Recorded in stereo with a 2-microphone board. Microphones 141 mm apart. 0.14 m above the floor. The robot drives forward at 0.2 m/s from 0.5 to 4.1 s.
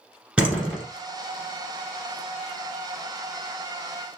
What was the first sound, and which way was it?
A door slam, 5° right (ahead or behind).